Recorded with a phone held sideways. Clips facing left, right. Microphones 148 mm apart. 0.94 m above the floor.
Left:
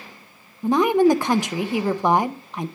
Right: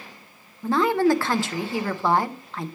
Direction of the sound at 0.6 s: 15° left (ahead or behind).